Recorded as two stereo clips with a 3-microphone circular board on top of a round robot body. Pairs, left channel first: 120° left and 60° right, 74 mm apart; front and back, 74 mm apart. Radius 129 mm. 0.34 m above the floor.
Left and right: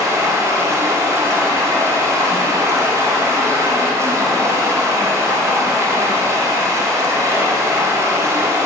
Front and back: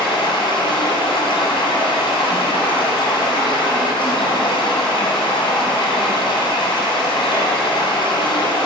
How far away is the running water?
About 0.8 m.